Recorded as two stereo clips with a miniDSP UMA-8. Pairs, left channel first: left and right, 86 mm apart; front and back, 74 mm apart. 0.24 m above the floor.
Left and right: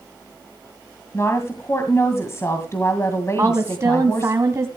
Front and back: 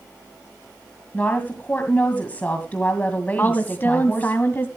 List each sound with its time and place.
1.1 s a woman speaking: 55° left, 1.9 m
3.4 s a woman speaking: 50° right, 1.3 m